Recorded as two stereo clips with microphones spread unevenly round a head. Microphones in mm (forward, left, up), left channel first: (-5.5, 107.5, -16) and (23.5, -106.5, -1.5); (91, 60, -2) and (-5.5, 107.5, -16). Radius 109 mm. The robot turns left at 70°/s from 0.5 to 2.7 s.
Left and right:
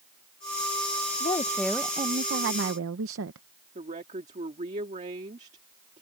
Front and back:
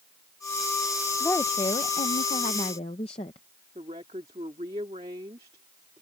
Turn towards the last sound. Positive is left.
turn(degrees=-140)